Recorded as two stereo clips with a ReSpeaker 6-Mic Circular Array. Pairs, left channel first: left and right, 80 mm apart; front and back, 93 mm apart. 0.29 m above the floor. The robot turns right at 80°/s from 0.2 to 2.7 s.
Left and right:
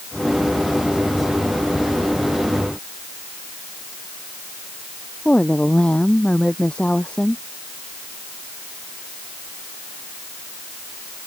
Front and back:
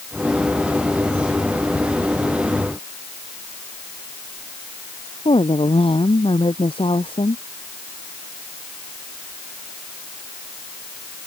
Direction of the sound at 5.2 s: 15° left.